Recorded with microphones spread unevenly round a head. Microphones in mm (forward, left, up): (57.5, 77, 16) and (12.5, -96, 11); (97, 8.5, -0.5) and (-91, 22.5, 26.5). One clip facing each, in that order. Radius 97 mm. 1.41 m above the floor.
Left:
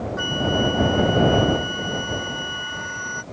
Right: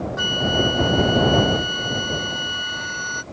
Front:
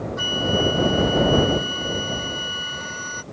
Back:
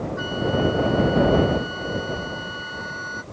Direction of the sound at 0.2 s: 60° right.